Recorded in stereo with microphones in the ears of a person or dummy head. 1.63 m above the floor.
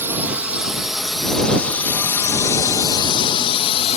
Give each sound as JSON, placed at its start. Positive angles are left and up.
{"t": 0.0, "sound": "a drone", "side_deg": -10}